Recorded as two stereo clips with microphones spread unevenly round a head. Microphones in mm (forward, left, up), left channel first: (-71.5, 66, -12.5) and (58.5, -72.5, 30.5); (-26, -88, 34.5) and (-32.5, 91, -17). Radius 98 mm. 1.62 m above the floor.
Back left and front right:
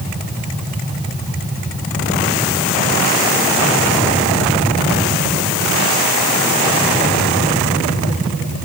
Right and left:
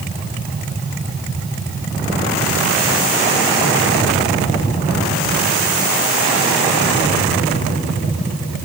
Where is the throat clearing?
I don't hear throat clearing.